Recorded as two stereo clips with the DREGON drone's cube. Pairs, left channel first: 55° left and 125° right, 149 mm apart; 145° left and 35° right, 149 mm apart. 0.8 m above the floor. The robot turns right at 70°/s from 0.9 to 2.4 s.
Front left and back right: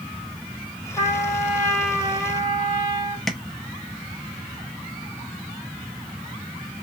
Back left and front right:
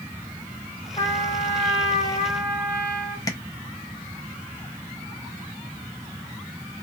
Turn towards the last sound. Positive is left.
turn(degrees=140)